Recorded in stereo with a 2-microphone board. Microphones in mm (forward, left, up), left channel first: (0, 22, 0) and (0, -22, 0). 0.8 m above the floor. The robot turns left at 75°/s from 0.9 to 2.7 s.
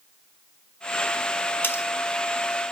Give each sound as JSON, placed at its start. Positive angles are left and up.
{"t": 1.6, "sound": "cutlery clinking", "side_deg": 55, "distance_m": 1.6}